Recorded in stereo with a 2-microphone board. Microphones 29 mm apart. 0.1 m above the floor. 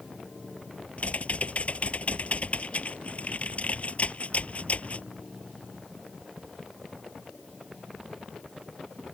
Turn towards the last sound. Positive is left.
turn(degrees=50)  # may be behind; listen again after turning